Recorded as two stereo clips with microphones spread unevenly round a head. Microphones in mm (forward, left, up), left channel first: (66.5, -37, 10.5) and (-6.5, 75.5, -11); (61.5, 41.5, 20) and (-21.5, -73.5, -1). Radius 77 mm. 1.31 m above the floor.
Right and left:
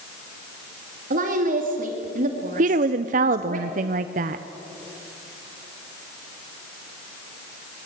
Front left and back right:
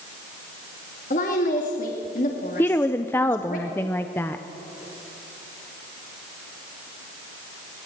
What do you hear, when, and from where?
1.1 s a woman speaking: 100° left, 2.5 m
2.6 s a woman speaking: 135° left, 0.6 m